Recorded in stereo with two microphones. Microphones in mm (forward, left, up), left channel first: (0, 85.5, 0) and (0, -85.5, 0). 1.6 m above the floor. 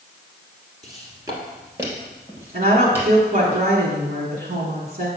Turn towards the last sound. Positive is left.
turn(degrees=-55)  # may be behind; listen again after turning